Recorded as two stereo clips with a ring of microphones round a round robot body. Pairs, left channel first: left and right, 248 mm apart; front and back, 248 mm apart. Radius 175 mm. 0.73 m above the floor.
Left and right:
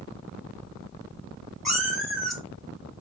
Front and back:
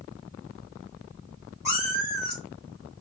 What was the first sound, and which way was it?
A cat meowing, straight ahead.